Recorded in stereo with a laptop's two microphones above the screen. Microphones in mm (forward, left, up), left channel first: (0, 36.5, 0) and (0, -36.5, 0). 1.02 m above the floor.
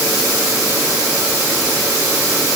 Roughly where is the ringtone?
I don't hear a ringtone.